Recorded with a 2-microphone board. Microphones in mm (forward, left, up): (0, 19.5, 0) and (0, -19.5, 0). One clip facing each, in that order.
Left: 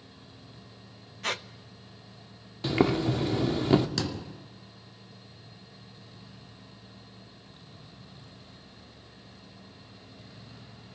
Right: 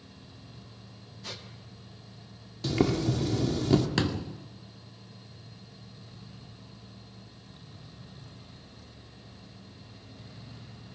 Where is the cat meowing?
I don't hear a cat meowing.